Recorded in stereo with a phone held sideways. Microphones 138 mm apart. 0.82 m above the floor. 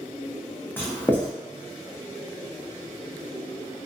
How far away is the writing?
About 0.7 m.